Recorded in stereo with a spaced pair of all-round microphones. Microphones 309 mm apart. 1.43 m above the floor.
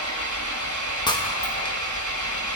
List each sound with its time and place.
0.0 s an engine running: 65° right (ahead or behind), 1.2 m
1.1 s breaking glass: 15° left (ahead or behind), 0.7 m